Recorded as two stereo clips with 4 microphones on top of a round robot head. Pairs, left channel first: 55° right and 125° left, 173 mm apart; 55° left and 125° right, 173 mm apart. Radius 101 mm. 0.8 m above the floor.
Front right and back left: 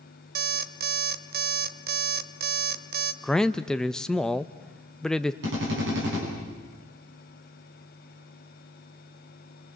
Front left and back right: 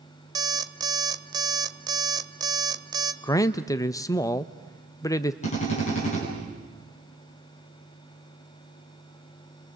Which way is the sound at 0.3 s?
165° left.